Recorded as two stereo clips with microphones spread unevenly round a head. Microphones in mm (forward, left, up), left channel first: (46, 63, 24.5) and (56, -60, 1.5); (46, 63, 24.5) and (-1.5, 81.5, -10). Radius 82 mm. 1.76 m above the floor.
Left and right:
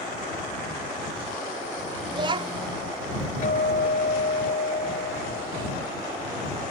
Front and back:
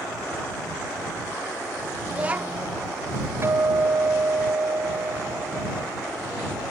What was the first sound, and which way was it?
A child speaking, 70° right.